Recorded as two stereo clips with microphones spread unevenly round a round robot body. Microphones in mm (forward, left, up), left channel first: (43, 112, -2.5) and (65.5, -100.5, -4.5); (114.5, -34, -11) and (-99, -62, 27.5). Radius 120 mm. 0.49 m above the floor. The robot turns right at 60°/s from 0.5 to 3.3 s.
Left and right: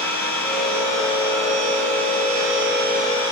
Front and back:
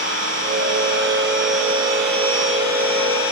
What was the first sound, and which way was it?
An engine running, straight behind.